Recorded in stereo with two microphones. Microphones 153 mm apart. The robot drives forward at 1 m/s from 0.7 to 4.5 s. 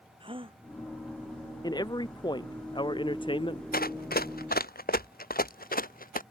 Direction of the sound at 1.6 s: 30° left (ahead or behind).